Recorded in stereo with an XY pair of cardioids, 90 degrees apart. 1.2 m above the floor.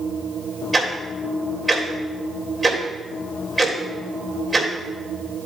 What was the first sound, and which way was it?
Ticking, 15° right.